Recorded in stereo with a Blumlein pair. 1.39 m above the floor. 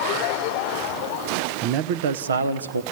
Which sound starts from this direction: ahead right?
A man speaking, at 1.6 s.